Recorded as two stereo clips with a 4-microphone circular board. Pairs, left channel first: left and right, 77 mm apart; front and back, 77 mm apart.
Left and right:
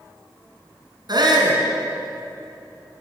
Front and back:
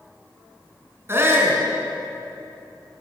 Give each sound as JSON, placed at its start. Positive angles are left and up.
{"t": 1.1, "sound": "a shout", "azimuth_deg": -120, "distance_m": 5.0}